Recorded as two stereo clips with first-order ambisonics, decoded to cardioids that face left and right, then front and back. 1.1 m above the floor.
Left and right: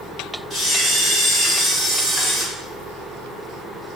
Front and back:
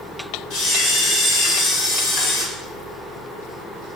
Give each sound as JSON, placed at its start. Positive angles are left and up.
{"t": 0.5, "sound": "a camera shutter", "azimuth_deg": 15, "distance_m": 1.2}